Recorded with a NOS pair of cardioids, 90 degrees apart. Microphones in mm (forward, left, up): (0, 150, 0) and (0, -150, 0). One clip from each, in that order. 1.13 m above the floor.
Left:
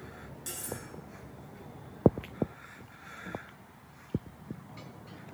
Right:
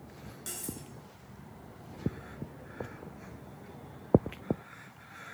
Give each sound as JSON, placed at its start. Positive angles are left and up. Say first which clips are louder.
{"t": 0.5, "sound": "cutlery clinking", "louder": "left 2 dB", "azimuth_deg": -5, "distance_m": 7.0}